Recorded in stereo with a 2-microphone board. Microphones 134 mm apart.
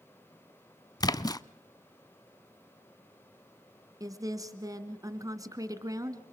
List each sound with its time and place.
1.0 s a splash: 30° left (ahead or behind), 0.5 m
4.0 s a woman speaking: 25° right (ahead or behind), 1.8 m